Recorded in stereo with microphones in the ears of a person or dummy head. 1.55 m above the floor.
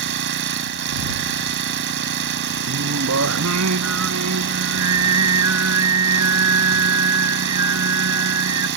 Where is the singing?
85° right.